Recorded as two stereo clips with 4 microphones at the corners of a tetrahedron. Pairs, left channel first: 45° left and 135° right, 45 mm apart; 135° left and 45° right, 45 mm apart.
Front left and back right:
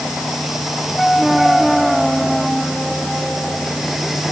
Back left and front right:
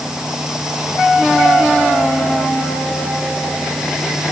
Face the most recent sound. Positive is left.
No sound to turn to.